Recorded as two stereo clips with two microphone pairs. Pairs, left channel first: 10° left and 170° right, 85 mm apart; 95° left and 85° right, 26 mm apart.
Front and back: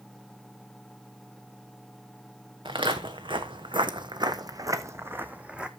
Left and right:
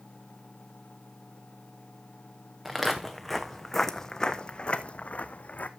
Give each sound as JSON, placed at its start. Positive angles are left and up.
{"t": 2.6, "sound": "footsteps", "azimuth_deg": -160, "distance_m": 1.7}